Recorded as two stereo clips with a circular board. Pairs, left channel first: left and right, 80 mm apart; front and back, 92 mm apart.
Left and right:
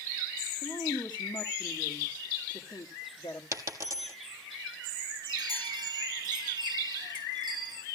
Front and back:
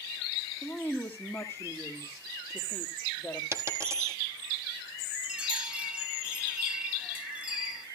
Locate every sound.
0.6 s a woman speaking: 80° left, 1.6 m
3.5 s a dropped coin: 130° right, 1.5 m
5.2 s a chime: 110° right, 1.9 m